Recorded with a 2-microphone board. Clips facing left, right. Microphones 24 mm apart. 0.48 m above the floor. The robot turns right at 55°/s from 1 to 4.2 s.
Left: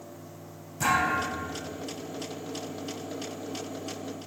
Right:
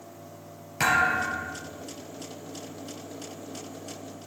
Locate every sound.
0.8 s a thud: 70° right, 3 m; by 1.6 s 40° right, 3 m